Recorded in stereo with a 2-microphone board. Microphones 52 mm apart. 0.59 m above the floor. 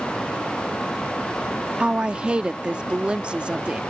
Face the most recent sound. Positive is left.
turn(degrees=-20)  # may be behind; listen again after turning